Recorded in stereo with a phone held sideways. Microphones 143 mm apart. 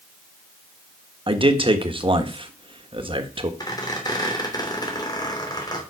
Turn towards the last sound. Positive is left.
turn(degrees=30)  # may be behind; listen again after turning